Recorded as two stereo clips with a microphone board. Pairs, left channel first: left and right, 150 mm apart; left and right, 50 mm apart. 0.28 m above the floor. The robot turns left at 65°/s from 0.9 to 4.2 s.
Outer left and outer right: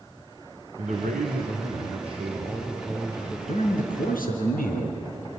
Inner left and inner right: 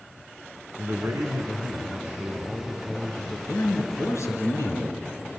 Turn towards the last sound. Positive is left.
turn(degrees=85)